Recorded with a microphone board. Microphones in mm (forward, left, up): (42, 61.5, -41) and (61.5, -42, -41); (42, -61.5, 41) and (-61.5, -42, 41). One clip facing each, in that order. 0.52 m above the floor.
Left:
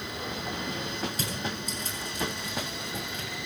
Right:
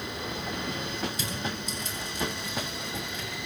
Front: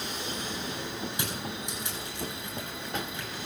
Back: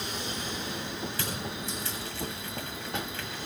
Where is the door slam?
I don't hear a door slam.